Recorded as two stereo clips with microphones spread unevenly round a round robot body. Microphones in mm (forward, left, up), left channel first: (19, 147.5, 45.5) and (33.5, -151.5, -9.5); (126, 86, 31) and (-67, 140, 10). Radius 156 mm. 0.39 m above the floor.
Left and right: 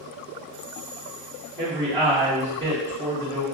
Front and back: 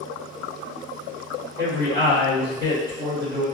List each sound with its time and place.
1.6 s a man speaking: 125° right, 1.2 m